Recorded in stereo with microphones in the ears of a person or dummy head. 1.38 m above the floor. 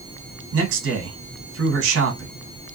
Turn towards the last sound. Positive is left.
turn(degrees=-85)